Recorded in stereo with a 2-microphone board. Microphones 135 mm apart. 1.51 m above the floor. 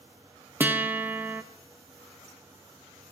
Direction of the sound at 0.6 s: 15° right (ahead or behind).